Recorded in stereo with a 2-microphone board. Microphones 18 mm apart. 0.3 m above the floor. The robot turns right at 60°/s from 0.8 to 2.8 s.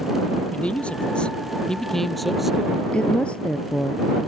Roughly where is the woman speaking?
Left.